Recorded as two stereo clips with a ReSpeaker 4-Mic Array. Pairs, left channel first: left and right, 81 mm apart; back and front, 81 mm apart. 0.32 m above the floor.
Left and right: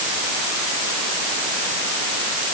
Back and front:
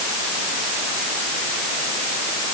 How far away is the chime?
No chime in this recording.